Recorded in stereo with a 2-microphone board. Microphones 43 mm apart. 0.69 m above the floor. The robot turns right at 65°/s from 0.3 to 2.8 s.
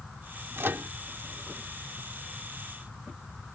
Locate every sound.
0.6 s a microwave: 70° right (ahead or behind); by 0.9 s 55° right (ahead or behind)